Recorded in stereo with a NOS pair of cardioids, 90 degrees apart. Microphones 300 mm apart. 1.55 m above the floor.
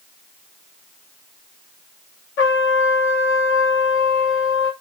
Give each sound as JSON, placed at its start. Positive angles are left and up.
{"t": 2.4, "sound": "a trumpet", "azimuth_deg": 40, "distance_m": 0.7}